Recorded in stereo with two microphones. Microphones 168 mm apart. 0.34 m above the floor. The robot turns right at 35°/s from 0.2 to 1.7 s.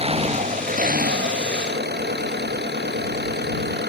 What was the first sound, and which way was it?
An engine running, 145° right.